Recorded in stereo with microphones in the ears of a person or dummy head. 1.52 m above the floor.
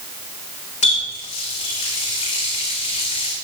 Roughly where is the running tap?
Left.